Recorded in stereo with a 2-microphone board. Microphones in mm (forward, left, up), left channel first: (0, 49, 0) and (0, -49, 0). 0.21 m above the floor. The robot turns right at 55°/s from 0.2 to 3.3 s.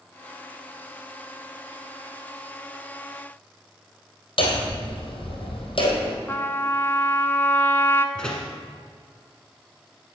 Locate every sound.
4.4 s hammering: 60° left (ahead or behind), 2.5 m
6.3 s a trumpet: 25° left (ahead or behind), 0.7 m
8.2 s a door slam: 10° left (ahead or behind), 1.6 m